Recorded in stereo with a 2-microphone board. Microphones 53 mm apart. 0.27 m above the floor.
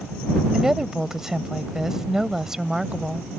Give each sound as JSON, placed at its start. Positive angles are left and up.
{"t": 0.5, "sound": "a woman speaking", "side_deg": -10}